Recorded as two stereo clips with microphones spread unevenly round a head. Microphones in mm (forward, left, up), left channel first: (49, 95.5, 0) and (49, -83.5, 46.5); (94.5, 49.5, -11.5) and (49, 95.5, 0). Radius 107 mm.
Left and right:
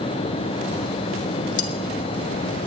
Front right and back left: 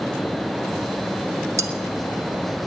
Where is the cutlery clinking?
120° left, 1.9 m.